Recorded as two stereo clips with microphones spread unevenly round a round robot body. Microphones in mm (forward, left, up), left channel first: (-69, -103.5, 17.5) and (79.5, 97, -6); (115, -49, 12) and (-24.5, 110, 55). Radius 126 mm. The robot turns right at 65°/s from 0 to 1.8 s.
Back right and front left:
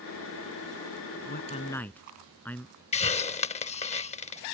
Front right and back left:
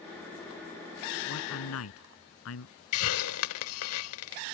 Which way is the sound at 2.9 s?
75° right.